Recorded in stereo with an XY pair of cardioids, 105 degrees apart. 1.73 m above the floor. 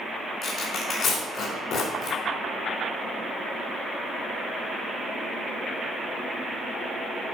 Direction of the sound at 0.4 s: 65° left.